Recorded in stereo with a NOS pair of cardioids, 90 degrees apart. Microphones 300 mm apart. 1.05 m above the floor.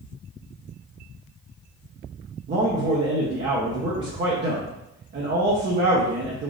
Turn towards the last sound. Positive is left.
turn(degrees=-40)